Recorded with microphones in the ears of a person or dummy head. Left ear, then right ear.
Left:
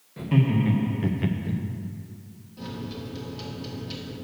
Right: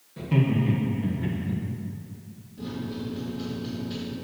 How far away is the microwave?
About 1.5 m.